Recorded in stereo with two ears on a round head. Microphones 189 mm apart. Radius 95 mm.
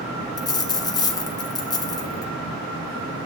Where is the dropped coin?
20° left (ahead or behind), 1.8 m.